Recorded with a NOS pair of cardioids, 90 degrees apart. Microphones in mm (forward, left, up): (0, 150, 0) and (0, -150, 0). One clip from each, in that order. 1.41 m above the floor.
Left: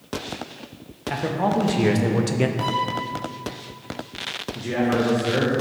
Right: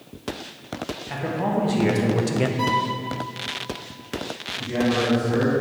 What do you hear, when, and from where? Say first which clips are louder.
1.1 s a man speaking: left 3 dB; 25° left, 1.4 m; by 2.5 s 5° left, 0.6 m
2.6 s a violin: right 2 dB; 40° right, 1.7 m
4.5 s a man speaking: even; 70° left, 1.7 m